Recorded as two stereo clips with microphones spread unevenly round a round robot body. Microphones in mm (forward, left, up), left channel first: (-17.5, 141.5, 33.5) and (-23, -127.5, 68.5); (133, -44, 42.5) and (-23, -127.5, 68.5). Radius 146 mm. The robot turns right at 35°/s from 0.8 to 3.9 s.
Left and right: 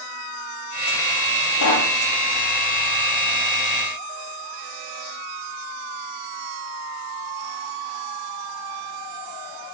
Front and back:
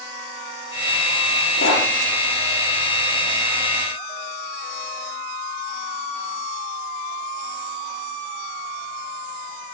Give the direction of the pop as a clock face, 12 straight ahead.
9 o'clock.